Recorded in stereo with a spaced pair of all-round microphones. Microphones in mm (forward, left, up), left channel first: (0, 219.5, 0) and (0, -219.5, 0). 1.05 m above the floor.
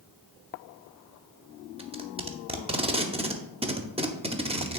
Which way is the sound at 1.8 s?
15° right (ahead or behind).